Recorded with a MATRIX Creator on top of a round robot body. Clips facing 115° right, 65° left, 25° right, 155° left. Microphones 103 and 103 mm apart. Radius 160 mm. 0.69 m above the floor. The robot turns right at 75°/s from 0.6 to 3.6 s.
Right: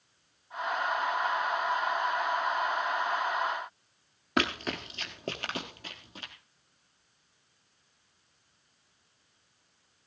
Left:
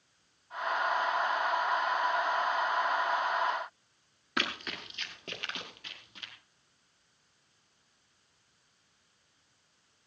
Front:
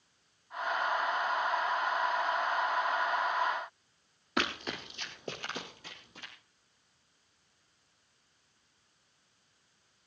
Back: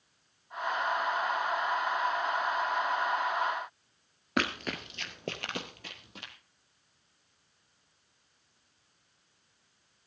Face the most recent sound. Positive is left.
turn(degrees=-170)